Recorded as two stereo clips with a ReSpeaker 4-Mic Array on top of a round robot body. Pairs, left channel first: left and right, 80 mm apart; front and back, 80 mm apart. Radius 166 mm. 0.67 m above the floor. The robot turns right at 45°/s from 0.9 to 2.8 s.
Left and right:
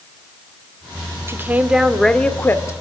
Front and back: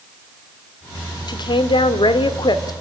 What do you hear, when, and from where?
1.3 s a woman speaking: 30° right, 2 m; by 2.7 s 35° left, 2 m